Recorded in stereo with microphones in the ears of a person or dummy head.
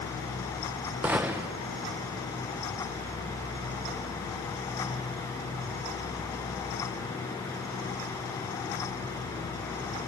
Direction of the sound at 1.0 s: 10° right (ahead or behind).